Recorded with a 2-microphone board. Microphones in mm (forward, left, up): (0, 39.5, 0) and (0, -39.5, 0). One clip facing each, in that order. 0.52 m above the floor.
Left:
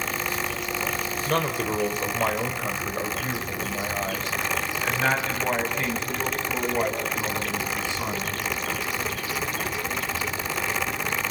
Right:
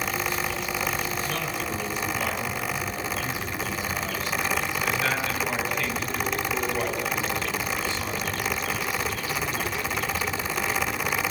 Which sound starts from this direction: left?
A man speaking, at 1.3 s.